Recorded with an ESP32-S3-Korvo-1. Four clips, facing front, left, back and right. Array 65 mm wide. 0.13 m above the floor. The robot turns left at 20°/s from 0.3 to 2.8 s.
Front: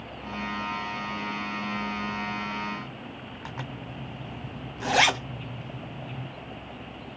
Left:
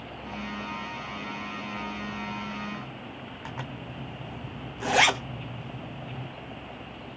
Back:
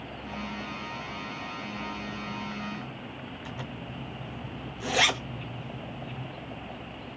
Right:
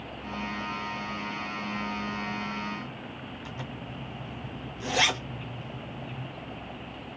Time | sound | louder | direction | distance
3.5 | a zipper | left 3 dB, front 3 dB | 45° left | 1.5 m